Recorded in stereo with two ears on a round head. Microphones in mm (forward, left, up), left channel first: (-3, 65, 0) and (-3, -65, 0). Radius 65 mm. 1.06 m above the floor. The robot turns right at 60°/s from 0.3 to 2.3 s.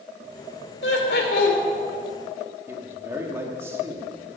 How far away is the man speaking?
About 1.8 m.